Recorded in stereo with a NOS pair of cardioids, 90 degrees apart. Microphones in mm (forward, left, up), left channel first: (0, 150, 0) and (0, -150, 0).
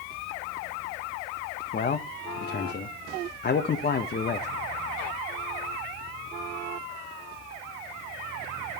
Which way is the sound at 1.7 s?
30° left.